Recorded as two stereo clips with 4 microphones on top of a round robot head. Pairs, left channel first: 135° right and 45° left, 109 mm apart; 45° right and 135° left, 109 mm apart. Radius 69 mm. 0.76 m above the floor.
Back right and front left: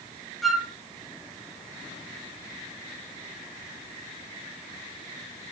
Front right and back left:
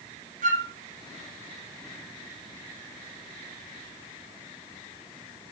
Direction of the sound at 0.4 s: 135° left.